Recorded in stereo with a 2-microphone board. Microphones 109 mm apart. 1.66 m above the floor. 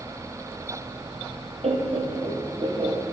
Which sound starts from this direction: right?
Laughter, at 1.6 s.